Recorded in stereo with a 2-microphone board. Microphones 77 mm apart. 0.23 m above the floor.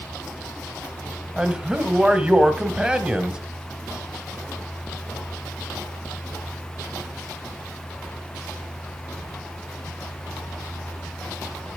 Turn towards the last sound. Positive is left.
turn(degrees=-10)  # may be behind; listen again after turning